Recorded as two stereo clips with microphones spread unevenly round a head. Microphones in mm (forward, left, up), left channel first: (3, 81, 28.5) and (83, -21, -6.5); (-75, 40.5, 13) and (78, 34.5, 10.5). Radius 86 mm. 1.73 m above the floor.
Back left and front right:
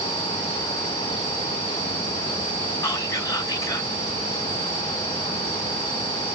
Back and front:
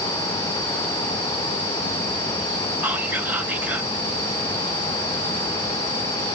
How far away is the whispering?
About 0.9 m.